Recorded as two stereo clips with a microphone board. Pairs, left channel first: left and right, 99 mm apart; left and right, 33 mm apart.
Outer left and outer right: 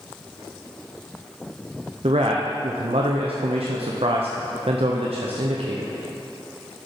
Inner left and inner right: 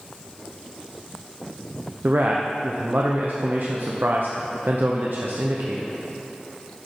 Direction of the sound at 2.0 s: 75° right (ahead or behind).